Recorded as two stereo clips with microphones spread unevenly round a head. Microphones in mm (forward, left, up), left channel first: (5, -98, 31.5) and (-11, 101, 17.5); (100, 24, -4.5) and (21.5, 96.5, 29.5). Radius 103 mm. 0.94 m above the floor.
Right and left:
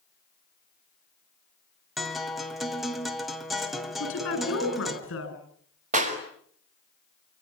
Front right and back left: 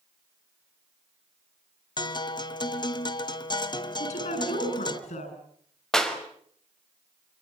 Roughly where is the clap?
Ahead left.